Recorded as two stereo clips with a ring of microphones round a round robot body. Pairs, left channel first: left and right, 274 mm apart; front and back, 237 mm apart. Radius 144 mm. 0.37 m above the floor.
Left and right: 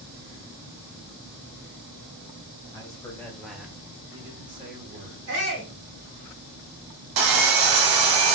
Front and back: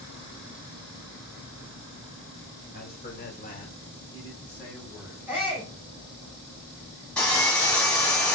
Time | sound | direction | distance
2.7 | a man speaking | 20° left | 1.2 m
5.3 | a shout | 100° right | 2 m
7.2 | sawing | 85° right | 0.7 m